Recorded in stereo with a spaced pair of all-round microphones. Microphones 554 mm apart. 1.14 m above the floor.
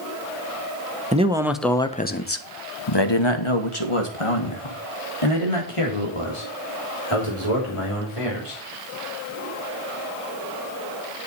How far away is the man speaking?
About 1.1 m.